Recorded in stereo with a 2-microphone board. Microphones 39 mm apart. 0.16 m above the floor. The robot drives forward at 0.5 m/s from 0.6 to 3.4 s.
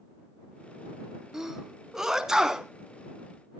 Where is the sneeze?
10° right (ahead or behind), 1.8 m; by 2.7 s 15° right (ahead or behind), 1.4 m.